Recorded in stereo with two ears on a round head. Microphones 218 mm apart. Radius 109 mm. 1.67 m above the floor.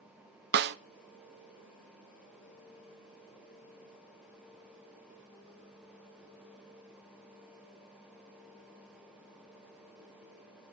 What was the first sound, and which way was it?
A snare drum, 45° right (ahead or behind).